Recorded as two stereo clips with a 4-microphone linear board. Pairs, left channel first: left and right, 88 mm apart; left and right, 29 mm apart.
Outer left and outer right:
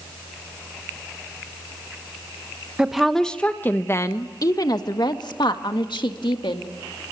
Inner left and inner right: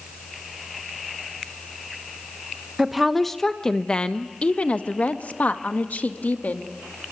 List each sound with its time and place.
2.8 s a woman speaking: 5° right (ahead or behind), 0.9 m; by 6.7 s 70° left (ahead or behind), 2 m